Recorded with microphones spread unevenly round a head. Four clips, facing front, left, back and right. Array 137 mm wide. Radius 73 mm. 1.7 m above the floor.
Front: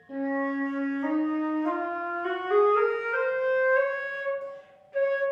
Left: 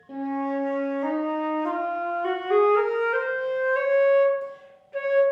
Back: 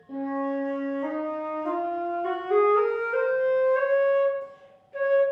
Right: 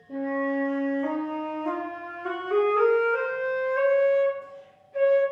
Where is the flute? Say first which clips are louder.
Even, even; 60° left, 1.0 m.